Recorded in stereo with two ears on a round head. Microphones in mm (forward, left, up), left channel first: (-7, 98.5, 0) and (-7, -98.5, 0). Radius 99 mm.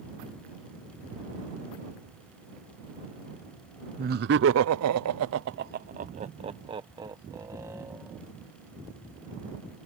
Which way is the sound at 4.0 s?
40° right (ahead or behind).